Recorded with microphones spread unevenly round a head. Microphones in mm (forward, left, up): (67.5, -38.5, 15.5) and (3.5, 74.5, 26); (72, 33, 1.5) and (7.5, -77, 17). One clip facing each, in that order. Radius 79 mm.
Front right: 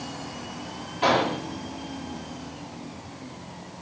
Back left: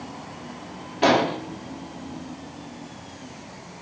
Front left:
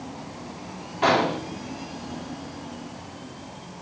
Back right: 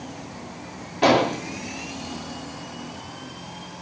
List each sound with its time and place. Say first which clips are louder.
1.0 s an explosion: back left 3 dB, back right 3 dB; 175° left, 3 m